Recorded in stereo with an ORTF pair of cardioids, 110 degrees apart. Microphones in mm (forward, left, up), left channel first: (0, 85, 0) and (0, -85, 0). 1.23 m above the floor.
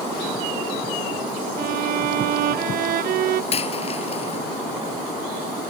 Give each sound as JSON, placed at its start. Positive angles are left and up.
{"t": 1.6, "sound": "a violin", "azimuth_deg": -60}
{"t": 3.5, "sound": "a dropped coin", "azimuth_deg": 35}